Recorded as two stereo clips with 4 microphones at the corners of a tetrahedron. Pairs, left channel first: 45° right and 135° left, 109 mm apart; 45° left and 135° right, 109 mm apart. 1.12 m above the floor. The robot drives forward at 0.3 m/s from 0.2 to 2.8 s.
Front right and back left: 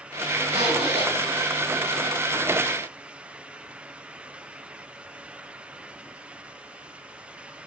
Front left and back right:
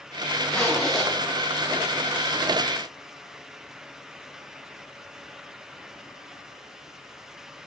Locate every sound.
0.5 s a zipper: 130° left, 3.5 m